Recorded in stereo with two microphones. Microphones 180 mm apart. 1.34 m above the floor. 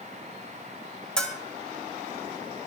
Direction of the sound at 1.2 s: 5° left (ahead or behind).